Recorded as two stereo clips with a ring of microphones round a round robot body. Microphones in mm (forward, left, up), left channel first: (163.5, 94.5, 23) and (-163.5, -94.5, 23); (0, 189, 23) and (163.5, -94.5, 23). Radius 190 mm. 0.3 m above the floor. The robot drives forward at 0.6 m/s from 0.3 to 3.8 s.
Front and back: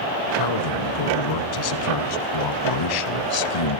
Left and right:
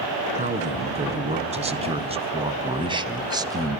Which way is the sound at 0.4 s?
10° left.